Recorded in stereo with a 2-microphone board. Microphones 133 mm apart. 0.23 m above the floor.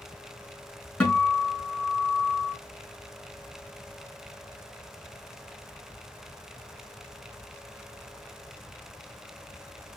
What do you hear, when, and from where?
1.0 s a guitar: 5° left (ahead or behind), 3 m